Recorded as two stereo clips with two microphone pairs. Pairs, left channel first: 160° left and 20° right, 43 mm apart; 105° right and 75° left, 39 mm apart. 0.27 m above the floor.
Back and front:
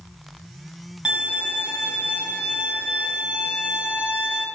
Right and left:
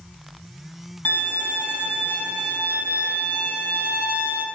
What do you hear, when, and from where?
1.1 s a violin: 85° right, 2.5 m